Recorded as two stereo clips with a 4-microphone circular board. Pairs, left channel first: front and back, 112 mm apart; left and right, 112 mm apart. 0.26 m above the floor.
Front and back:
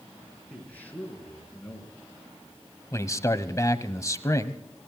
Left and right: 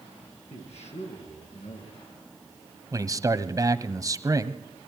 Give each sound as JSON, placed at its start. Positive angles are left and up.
{"t": 0.5, "sound": "a man speaking", "azimuth_deg": 75, "distance_m": 5.0}
{"t": 2.9, "sound": "a man speaking", "azimuth_deg": -50, "distance_m": 1.2}